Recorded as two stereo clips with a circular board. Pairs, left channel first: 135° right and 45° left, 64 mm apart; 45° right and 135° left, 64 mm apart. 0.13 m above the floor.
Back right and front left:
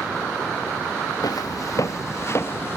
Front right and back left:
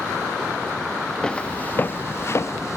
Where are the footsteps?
120° right, 0.7 m; by 2.8 s 80° right, 1.2 m.